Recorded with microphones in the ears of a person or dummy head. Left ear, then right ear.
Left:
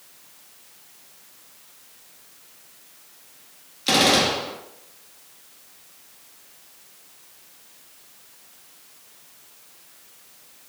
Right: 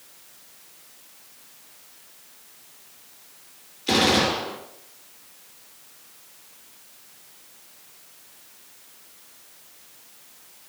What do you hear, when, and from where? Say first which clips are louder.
3.9 s a gunshot: left 2 dB; 65° left (ahead or behind), 1.9 m